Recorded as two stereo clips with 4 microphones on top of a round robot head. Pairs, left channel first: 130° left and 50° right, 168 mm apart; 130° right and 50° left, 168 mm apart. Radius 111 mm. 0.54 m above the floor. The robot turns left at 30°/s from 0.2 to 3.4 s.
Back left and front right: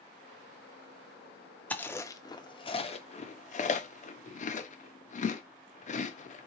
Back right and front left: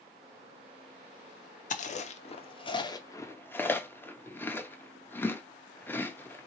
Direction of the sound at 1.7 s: 155° right.